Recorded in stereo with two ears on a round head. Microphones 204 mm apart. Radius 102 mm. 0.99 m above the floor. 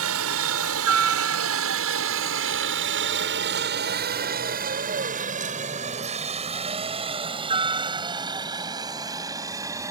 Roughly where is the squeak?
No squeak in this recording.